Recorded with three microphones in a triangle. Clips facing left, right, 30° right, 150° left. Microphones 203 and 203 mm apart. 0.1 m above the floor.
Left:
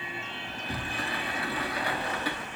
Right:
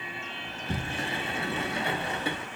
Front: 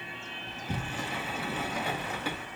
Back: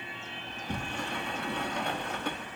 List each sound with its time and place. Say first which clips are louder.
0.5 s a sliding door: right 3 dB, even; 110° right, 0.5 m